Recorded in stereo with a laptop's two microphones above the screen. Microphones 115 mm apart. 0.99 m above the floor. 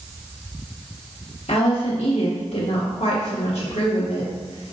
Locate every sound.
1.5 s a woman speaking: 75° left (ahead or behind), 2 m